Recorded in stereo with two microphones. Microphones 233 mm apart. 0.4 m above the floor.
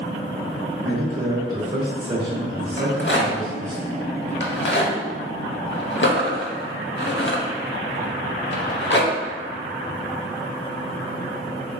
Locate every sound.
0.8 s a man speaking: 35° right (ahead or behind), 1.0 m
2.8 s a rattle: 50° left (ahead or behind), 0.7 m